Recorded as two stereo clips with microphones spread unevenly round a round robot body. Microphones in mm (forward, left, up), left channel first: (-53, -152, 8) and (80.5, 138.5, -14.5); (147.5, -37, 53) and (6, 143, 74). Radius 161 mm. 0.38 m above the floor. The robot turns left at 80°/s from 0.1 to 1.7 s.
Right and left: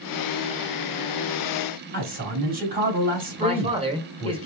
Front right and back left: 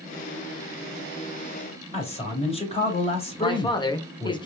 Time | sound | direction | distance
1.9 | a man speaking | 5° left | 2.5 m
3.4 | a man speaking | 5° left | 1.1 m